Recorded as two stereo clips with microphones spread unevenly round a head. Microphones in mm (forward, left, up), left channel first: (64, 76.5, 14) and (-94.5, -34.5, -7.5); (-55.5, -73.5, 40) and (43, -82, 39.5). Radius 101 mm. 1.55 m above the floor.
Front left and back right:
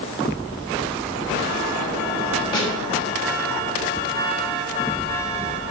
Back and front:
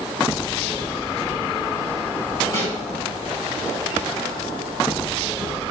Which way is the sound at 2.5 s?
100° left.